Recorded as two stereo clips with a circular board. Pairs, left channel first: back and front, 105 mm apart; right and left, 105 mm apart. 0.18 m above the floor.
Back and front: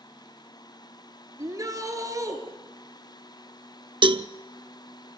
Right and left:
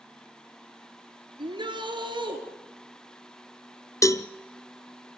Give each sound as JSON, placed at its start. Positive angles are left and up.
{"t": 1.4, "sound": "a shout", "azimuth_deg": 55, "distance_m": 2.5}
{"t": 4.0, "sound": "a cowbell", "azimuth_deg": -30, "distance_m": 0.6}